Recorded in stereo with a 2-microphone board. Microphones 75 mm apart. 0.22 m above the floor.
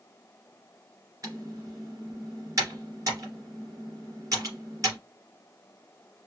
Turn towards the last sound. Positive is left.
turn(degrees=-45)  # may be behind; listen again after turning